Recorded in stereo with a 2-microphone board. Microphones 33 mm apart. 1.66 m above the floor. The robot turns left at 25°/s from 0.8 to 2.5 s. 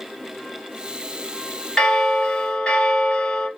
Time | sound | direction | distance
1.8 | a bell | 20° left (ahead or behind) | 1.4 m